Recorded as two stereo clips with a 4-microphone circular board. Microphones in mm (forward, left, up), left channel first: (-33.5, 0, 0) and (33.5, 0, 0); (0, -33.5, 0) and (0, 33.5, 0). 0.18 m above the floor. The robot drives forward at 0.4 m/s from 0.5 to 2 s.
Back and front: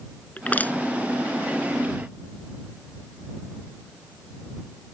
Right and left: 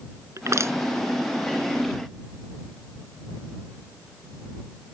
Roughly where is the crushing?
Behind left.